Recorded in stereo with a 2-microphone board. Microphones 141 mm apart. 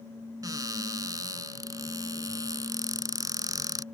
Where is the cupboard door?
25° right (ahead or behind).